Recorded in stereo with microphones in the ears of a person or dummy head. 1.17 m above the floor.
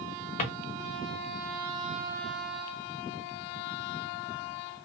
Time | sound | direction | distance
0.4 | a drawer | 40° left (ahead or behind) | 1.2 m